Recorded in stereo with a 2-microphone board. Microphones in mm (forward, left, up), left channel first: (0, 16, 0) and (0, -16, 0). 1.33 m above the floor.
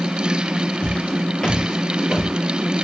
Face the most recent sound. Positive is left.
turn(degrees=5)  # may be behind; listen again after turning